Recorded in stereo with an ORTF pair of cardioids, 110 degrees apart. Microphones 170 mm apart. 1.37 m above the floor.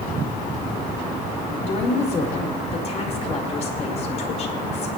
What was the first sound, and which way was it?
A woman speaking, 40° left.